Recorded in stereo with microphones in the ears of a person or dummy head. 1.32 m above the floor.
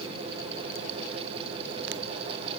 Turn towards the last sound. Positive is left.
No sound to turn to.